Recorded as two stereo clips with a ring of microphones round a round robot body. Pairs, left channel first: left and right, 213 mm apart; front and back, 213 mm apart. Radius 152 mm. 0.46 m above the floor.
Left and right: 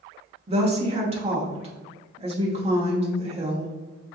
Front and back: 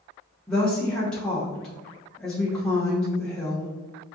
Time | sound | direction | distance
0.5 | a woman speaking | 85° right | 0.8 m